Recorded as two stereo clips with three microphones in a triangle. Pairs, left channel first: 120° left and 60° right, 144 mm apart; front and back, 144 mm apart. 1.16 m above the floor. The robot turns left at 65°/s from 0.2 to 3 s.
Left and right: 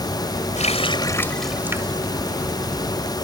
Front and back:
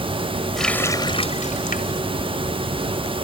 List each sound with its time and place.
0.6 s a running tap: 90° left; by 2.0 s 5° right